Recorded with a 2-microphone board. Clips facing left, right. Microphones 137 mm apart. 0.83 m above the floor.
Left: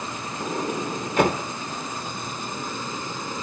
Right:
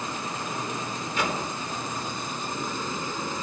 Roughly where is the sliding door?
Left.